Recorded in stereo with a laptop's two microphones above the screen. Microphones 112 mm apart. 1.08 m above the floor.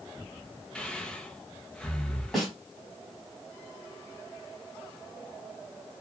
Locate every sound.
0.8 s breathing: 5° left (ahead or behind), 0.6 m
2.3 s a snare drum: centre (ahead or behind), 1.6 m